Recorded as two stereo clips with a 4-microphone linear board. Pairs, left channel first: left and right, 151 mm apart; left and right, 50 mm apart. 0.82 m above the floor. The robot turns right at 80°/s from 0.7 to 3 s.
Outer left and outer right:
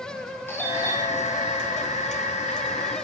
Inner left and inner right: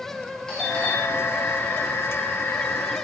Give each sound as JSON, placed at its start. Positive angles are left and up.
{"t": 0.5, "sound": "a doorbell", "azimuth_deg": 15, "distance_m": 8.0}